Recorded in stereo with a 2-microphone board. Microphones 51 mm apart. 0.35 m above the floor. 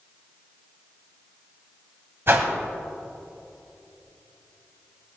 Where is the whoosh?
55° right (ahead or behind), 1.4 m.